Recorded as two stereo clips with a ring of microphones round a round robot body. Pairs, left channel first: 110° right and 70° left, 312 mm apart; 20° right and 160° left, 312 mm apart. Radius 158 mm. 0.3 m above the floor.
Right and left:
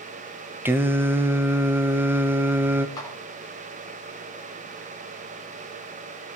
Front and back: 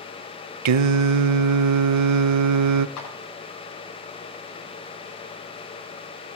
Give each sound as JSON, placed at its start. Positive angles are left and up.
{"t": 0.7, "sound": "singing", "azimuth_deg": 150, "distance_m": 0.5}
{"t": 3.0, "sound": "a clap", "azimuth_deg": -35, "distance_m": 6.0}